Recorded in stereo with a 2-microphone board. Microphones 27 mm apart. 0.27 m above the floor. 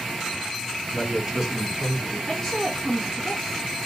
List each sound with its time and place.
0.9 s a man speaking: 15° right (ahead or behind), 3 m; by 2.2 s 5° right (ahead or behind), 2.5 m
2.3 s a woman speaking: 25° left (ahead or behind), 2.5 m